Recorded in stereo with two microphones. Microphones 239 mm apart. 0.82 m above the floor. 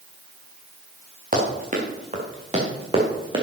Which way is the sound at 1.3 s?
35° right (ahead or behind).